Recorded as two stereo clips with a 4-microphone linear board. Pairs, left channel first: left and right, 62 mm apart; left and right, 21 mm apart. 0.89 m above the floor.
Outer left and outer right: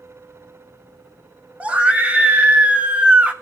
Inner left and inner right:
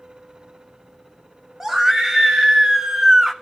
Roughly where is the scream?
Right.